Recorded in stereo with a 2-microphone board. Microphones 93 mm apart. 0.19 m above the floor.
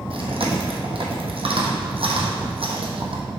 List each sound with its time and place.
0.1 s chewing: 75° right (ahead or behind), 1.3 m